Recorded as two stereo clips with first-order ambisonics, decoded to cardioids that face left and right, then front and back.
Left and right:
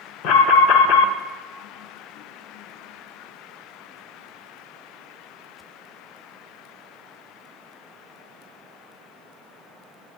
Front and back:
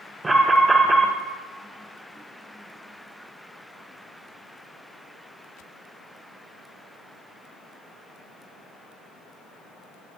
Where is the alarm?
100° left, 1.1 m.